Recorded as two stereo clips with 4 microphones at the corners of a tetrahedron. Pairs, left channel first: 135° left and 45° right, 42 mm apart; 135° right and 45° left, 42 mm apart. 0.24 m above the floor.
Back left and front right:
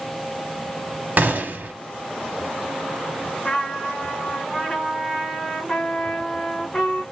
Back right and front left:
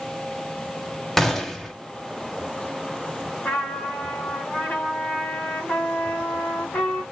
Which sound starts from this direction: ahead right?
A gunshot, at 1.2 s.